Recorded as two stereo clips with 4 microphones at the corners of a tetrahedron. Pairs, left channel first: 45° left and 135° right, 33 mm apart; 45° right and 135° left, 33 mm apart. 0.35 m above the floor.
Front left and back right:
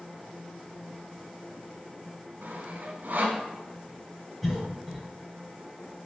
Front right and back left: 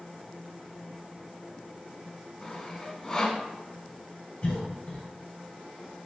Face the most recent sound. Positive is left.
turn(degrees=-45)